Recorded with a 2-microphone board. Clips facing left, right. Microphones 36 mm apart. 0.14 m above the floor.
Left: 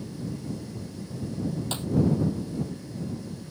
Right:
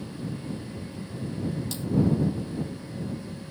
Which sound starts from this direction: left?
A clap, at 1.7 s.